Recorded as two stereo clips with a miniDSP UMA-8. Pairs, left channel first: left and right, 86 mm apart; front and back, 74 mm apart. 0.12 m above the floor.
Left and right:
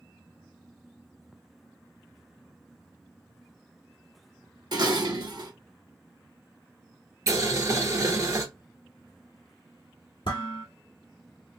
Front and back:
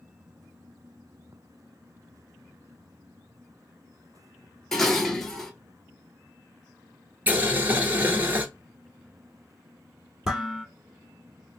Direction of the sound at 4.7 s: 85° right.